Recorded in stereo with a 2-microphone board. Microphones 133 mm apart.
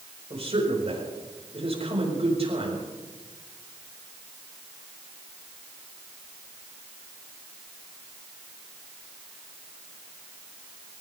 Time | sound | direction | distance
0.3 | a man speaking | 50° right (ahead or behind) | 5 m